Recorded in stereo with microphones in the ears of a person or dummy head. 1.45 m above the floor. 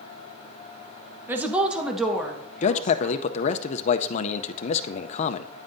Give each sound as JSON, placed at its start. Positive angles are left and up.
{"t": 1.3, "sound": "a woman speaking", "side_deg": -5, "distance_m": 0.9}
{"t": 2.6, "sound": "a man speaking", "side_deg": 50, "distance_m": 0.6}